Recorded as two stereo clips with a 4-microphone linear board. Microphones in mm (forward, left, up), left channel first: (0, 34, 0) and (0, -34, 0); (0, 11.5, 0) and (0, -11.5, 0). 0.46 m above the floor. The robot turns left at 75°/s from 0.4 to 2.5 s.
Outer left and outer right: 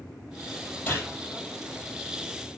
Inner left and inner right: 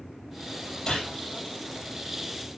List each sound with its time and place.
0.9 s a gunshot: 20° left (ahead or behind), 6 m; by 1.1 s 40° left (ahead or behind), 6 m